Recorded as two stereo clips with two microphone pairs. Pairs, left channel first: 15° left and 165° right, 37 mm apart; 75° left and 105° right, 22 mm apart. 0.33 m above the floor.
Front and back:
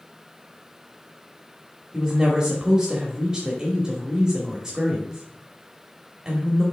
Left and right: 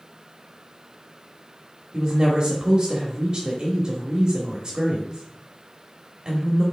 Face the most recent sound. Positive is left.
turn(degrees=-120)